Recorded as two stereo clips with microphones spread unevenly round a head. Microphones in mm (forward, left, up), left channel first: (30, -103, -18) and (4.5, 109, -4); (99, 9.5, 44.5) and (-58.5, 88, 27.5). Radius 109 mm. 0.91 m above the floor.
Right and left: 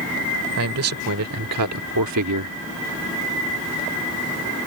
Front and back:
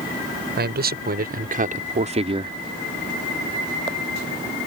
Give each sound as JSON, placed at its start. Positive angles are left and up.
{"t": 0.6, "sound": "a man speaking", "azimuth_deg": 125}